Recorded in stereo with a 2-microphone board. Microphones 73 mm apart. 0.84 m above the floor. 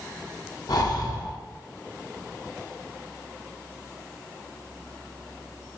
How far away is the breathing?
About 0.6 m.